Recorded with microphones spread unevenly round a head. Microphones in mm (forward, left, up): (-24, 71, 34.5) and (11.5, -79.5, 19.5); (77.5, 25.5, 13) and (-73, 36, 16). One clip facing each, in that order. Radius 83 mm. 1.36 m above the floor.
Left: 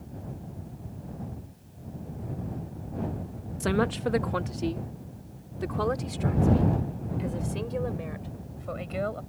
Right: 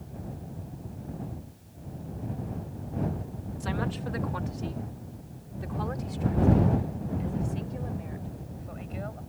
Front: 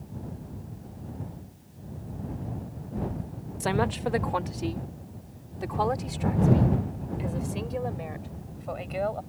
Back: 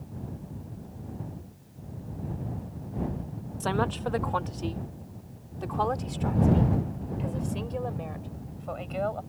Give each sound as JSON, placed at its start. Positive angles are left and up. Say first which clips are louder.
{"t": 3.6, "sound": "a woman speaking", "louder": "left 7 dB, front 2 dB", "azimuth_deg": 75}